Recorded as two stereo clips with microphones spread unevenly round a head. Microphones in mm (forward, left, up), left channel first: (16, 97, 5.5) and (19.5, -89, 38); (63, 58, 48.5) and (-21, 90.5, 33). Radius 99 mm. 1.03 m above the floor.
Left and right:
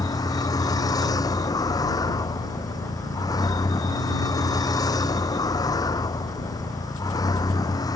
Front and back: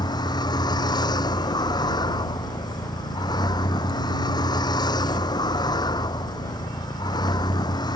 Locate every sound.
0.0 s a vehicle: 20° left